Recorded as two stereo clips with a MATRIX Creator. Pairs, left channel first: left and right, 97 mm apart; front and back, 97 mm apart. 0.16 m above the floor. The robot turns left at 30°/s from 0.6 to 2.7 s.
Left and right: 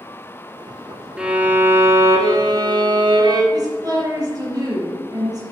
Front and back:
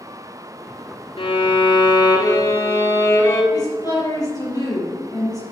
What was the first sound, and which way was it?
A violin, 10° right.